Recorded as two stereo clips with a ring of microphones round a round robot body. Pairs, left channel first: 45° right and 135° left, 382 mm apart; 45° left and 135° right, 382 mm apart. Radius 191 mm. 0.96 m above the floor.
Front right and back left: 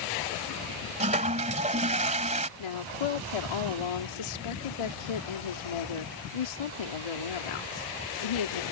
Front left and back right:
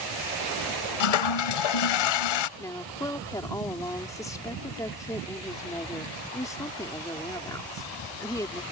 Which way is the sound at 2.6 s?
35° right.